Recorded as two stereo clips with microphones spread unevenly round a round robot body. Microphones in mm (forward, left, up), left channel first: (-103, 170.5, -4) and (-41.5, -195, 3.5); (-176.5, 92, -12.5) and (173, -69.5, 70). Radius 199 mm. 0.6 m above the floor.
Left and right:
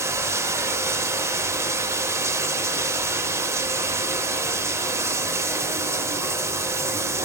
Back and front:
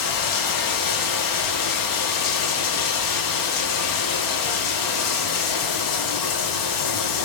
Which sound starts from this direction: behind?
Running water, at 0.0 s.